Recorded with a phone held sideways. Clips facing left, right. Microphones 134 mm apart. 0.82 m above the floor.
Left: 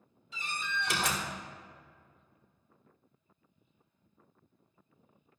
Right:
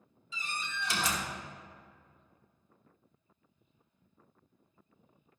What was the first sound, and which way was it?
A door slam, 55° left (ahead or behind).